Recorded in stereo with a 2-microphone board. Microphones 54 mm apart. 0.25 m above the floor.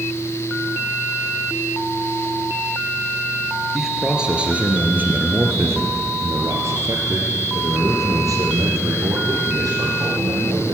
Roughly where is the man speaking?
Centre.